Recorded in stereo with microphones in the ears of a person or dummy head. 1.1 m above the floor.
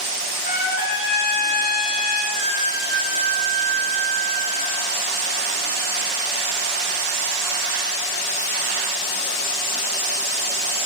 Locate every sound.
0.4 s a trumpet: 45° left (ahead or behind), 1.7 m
2.3 s a flute: 65° left (ahead or behind), 2.5 m